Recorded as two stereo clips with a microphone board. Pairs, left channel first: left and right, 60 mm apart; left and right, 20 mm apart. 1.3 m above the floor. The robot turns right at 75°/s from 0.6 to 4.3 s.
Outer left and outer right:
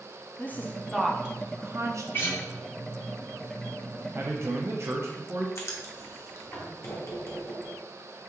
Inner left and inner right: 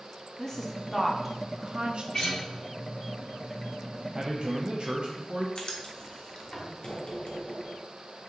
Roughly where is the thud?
No thud in this recording.